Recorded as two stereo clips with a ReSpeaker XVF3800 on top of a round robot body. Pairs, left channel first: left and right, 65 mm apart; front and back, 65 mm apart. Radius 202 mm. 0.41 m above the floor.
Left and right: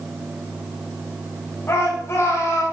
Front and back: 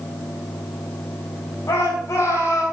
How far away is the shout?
About 3.5 m.